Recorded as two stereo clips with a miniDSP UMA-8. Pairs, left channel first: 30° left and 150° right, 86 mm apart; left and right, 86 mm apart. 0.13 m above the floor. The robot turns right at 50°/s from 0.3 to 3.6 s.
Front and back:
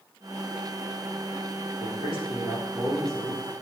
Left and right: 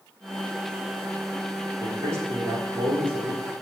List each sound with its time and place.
1.8 s a man speaking: 165° right, 6 m; by 3.4 s 85° right, 6 m